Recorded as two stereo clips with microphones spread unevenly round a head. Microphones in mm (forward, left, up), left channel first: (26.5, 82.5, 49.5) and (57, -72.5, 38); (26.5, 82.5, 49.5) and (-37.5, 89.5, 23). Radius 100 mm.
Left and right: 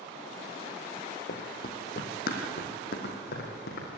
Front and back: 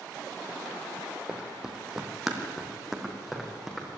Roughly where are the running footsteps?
Left.